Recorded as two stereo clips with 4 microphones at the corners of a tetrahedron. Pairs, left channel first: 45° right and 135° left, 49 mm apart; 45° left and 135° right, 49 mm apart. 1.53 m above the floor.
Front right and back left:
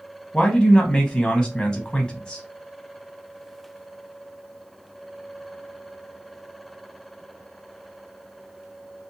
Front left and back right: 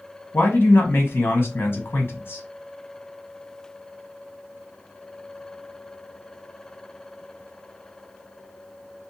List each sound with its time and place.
0.3 s a man speaking: 30° left, 0.8 m